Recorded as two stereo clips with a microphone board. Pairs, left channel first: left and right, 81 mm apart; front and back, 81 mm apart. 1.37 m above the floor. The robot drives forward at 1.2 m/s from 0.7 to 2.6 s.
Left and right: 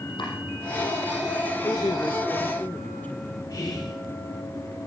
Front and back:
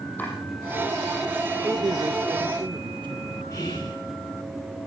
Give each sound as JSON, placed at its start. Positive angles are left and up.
{"t": 0.2, "sound": "chopping", "azimuth_deg": 70, "distance_m": 7.0}
{"t": 1.6, "sound": "a man speaking", "azimuth_deg": 115, "distance_m": 0.6}
{"t": 3.5, "sound": "whispering", "azimuth_deg": 45, "distance_m": 1.8}